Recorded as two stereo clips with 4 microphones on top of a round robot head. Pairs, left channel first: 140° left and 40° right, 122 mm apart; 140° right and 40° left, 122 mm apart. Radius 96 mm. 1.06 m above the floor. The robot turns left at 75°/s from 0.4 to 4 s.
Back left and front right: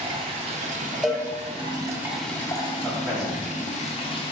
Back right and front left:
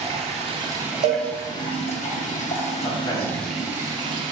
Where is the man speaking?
95° right, 0.9 m; by 3.5 s 150° right, 0.9 m.